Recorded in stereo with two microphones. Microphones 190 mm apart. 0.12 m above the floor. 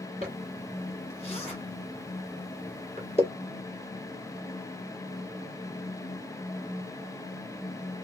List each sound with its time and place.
0.2 s a zipper: 35° left (ahead or behind), 1.6 m